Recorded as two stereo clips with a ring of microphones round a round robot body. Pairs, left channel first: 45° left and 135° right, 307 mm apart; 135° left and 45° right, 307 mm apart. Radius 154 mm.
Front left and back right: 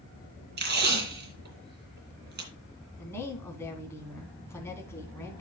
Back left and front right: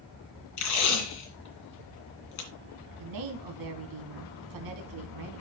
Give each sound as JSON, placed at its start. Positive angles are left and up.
{"t": 0.6, "sound": "tape being pulled", "azimuth_deg": 165, "distance_m": 2.5}
{"t": 3.0, "sound": "a woman speaking", "azimuth_deg": -35, "distance_m": 3.0}